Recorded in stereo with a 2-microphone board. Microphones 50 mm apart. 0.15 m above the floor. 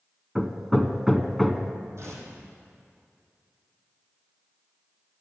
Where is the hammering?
Centre (ahead or behind), 0.8 m.